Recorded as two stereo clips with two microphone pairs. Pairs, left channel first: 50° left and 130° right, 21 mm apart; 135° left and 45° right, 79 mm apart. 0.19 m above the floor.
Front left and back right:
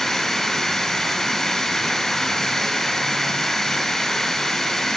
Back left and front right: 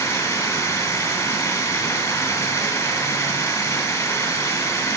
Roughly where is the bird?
I don't hear a bird.